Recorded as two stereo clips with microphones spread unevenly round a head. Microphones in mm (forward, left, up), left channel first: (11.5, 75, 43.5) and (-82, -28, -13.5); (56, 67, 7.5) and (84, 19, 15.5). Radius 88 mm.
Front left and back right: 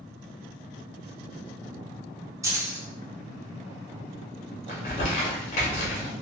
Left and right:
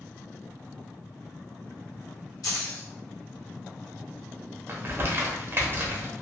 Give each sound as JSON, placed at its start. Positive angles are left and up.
{"t": 2.4, "sound": "keys jangling", "azimuth_deg": 150, "distance_m": 0.8}
{"t": 4.7, "sound": "crumpling", "azimuth_deg": -10, "distance_m": 0.8}